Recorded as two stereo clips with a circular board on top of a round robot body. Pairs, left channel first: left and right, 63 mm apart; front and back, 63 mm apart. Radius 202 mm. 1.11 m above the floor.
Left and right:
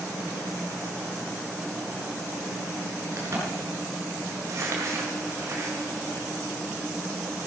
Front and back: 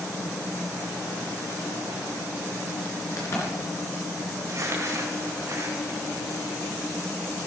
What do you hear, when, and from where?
3.2 s a crack: 45° right, 4 m
4.5 s crumpling: 135° right, 1.9 m